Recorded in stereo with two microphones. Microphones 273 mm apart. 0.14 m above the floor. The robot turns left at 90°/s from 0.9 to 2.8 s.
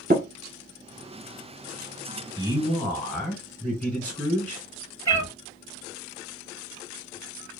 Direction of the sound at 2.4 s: 150° right.